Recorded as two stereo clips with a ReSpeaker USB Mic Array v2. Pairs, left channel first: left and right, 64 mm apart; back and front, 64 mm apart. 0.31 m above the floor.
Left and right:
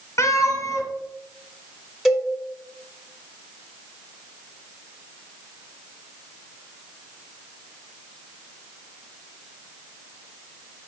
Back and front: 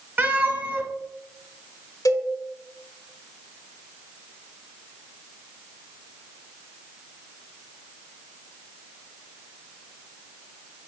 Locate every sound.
0.2 s a cat meowing: 55° left, 0.8 m
2.0 s a cowbell: 175° right, 0.8 m